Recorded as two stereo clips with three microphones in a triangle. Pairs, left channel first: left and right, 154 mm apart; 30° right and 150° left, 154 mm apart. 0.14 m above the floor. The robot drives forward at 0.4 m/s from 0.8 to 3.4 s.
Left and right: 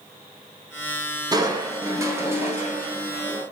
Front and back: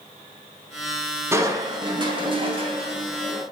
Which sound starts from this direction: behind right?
Crushing, at 1.3 s.